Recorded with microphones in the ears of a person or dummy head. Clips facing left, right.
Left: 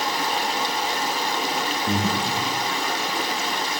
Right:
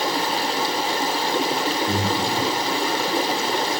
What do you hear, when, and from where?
0.0 s running water: 35° right (ahead or behind), 1.0 m
1.9 s breathing: 20° left (ahead or behind), 1.8 m